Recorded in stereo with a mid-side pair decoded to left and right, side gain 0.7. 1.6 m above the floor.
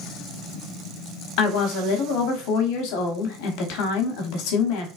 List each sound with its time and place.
1.4 s a woman speaking: 70° left, 0.9 m